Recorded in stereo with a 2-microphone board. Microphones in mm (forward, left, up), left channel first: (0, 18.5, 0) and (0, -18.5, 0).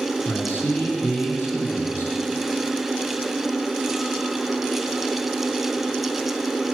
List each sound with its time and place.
0.2 s a man speaking: 60° left (ahead or behind), 3.5 m; by 2.1 s 65° left (ahead or behind), 4.5 m